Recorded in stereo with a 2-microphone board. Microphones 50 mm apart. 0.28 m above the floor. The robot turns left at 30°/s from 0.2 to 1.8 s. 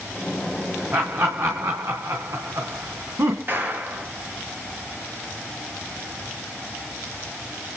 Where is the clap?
40° right (ahead or behind), 5 m.